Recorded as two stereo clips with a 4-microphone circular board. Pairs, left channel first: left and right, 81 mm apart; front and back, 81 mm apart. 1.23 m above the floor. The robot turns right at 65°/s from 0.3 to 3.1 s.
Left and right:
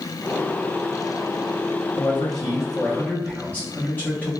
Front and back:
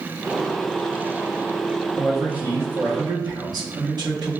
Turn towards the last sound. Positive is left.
turn(degrees=160)